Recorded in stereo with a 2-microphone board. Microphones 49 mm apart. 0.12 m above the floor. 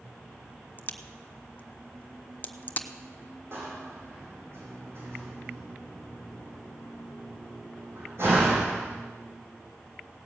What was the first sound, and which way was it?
A crack, 35° left (ahead or behind).